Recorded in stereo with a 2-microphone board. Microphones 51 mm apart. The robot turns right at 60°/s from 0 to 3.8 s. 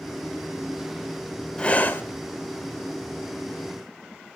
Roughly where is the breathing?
Centre.